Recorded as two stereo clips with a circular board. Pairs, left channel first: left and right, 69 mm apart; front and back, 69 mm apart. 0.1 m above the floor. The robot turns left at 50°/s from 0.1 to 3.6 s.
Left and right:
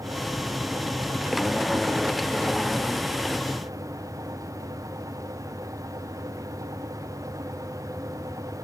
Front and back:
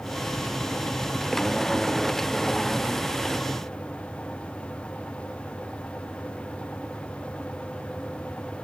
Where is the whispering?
I don't hear whispering.